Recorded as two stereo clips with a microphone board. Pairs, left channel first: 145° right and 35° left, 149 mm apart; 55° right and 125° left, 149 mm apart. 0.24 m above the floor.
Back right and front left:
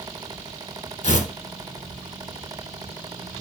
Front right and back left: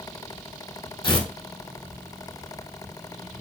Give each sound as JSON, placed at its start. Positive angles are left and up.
{"t": 1.0, "sound": "tearing paper", "azimuth_deg": -110, "distance_m": 0.8}